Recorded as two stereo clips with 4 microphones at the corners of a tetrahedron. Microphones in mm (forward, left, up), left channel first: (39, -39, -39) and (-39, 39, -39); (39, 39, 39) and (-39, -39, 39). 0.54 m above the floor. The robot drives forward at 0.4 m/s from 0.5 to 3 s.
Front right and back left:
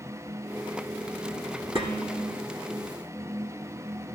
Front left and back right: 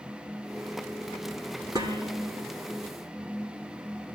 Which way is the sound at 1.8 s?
170° left.